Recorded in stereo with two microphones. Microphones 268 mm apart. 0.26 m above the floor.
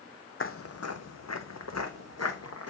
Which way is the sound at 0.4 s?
50° left (ahead or behind).